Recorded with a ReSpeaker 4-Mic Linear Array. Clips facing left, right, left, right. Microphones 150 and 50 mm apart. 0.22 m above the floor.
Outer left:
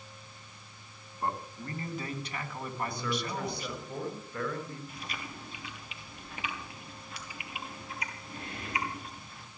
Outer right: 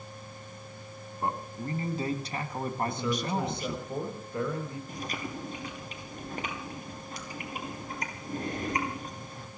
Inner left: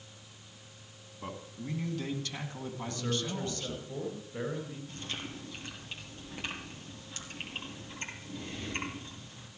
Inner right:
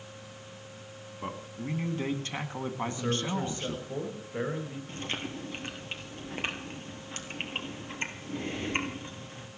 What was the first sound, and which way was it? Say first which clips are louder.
A man speaking: outer right 2 dB, inner right 4 dB; 20° right (ahead or behind).